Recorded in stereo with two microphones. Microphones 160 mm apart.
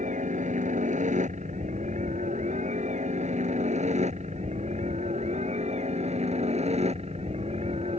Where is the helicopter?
50° right (ahead or behind); by 8.0 s 40° right (ahead or behind).